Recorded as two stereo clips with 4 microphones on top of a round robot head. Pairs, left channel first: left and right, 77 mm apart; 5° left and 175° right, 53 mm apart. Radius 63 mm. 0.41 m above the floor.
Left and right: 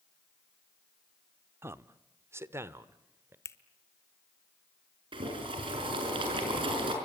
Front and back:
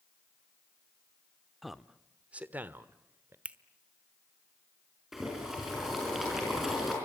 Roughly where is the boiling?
Right.